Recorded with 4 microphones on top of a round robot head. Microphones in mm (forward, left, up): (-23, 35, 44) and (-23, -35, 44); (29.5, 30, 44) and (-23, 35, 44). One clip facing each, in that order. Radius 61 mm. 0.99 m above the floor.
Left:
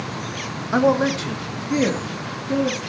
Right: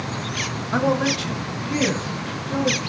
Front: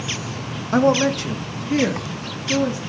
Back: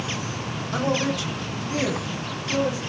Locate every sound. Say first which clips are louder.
0.7 s a man speaking: left 3 dB, front 8 dB; 20° left, 0.8 m; by 2.8 s 30° left, 3 m